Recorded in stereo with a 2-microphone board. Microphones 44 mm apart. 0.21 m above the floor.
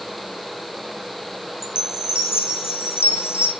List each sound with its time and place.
1.6 s a chime: 80° left, 2 m